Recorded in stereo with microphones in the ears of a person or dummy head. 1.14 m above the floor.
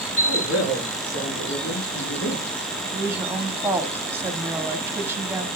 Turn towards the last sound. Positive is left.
turn(degrees=-10)  # may be behind; listen again after turning